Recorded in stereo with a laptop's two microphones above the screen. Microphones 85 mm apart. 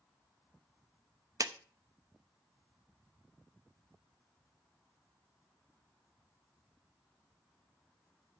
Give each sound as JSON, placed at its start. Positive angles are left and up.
{"t": 1.4, "sound": "a clap", "side_deg": -45, "distance_m": 0.7}